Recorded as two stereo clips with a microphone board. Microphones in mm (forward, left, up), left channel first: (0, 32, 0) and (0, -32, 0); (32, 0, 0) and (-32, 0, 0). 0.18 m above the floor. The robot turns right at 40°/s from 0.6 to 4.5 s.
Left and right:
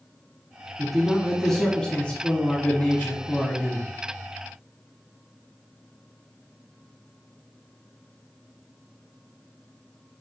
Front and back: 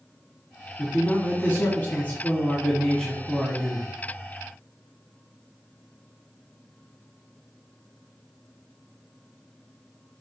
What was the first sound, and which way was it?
A man speaking, 15° right.